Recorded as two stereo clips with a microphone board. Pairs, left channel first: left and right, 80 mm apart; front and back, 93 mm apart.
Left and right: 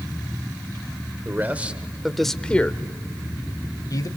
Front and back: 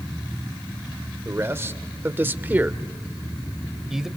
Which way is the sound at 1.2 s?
135° right.